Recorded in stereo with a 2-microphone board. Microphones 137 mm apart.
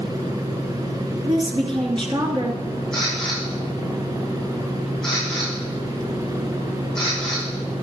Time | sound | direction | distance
1.3 | a woman speaking | 35° right (ahead or behind) | 2 m
2.9 | a camera shutter | 5° left (ahead or behind) | 6.5 m